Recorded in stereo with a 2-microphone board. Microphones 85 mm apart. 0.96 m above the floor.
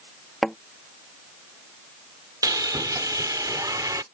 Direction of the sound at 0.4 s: Centre (ahead or behind).